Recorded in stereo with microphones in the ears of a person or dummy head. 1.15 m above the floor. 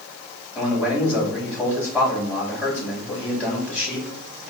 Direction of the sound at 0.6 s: Centre (ahead or behind).